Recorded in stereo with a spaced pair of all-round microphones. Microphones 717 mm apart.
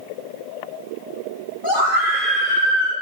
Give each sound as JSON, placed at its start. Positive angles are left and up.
{"t": 1.6, "sound": "a scream", "side_deg": 30, "distance_m": 9.0}